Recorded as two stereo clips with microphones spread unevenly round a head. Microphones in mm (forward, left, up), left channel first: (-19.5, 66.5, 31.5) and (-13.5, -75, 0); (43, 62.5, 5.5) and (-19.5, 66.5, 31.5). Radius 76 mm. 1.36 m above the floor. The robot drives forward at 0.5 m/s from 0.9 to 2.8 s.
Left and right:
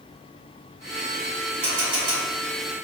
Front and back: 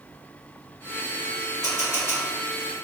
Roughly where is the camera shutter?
Right.